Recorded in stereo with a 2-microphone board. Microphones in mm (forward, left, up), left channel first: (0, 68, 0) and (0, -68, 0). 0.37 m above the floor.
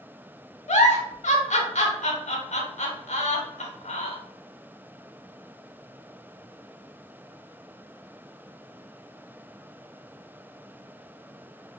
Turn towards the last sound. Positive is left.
turn(degrees=65)  # may be behind; listen again after turning